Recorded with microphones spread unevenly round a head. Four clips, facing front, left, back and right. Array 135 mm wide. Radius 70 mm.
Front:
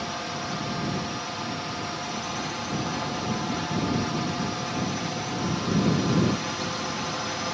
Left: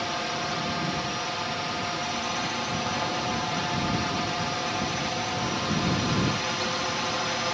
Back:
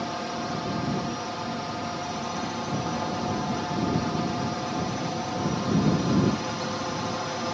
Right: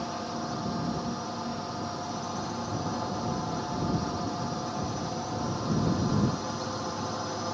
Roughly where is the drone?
Behind left.